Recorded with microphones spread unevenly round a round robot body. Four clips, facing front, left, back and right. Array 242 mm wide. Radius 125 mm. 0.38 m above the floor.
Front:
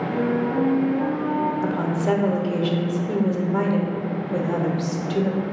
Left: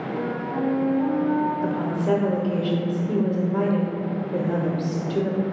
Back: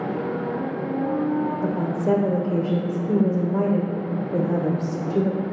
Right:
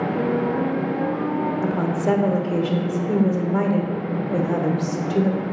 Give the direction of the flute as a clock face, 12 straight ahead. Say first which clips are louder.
Right 3 dB, front 4 dB; 1 o'clock.